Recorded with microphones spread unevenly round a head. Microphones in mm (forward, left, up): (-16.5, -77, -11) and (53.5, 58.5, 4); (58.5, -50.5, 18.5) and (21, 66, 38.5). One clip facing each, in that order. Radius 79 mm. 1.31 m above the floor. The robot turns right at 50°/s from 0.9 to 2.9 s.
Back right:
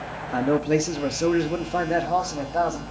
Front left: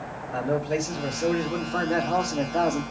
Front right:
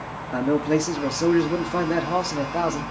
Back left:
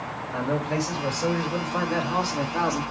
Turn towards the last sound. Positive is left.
turn(degrees=0)